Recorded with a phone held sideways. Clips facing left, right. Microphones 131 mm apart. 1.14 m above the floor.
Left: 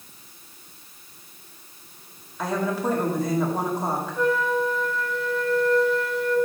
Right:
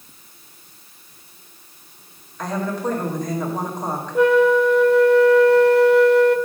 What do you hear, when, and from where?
2.4 s a woman speaking: 5° left (ahead or behind), 2 m
4.2 s a flute: 75° right (ahead or behind), 0.5 m